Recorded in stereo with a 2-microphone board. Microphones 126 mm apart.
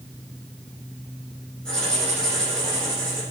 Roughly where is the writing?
Centre.